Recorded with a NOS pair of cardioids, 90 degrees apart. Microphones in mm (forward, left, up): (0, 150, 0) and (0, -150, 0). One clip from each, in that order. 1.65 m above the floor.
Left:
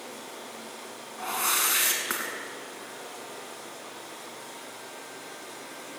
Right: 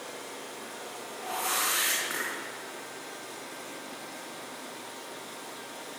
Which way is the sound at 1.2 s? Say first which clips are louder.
Left 3 dB; 60° left.